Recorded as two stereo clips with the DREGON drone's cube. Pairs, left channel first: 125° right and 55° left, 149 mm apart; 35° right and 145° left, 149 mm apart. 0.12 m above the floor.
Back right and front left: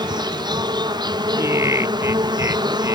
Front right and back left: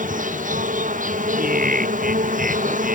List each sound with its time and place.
0.0 s an insect: 120° left
1.4 s laughter: 125° left